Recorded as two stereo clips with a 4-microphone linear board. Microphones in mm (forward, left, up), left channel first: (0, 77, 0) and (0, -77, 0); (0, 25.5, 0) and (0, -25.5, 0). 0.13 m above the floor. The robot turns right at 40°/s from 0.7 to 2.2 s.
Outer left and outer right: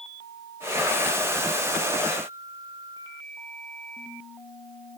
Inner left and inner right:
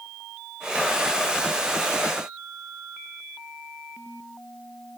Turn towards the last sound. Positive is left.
No sound to turn to.